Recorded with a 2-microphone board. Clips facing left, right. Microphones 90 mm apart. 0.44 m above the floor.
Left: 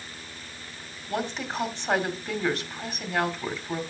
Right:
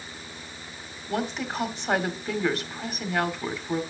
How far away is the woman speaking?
About 1.3 m.